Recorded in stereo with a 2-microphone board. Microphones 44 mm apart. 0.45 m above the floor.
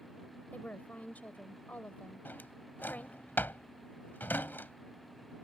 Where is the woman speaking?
40° left (ahead or behind).